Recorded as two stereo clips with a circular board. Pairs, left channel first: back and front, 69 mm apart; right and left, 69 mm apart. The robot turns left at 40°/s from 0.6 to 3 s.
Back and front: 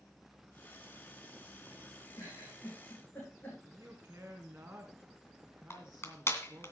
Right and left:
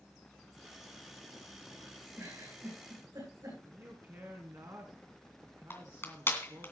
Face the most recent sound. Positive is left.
turn(degrees=-135)